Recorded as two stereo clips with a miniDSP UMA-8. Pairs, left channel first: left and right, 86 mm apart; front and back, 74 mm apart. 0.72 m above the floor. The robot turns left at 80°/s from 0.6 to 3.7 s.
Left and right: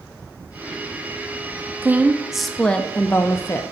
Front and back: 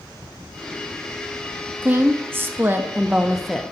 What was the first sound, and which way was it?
A woman speaking, 135° right.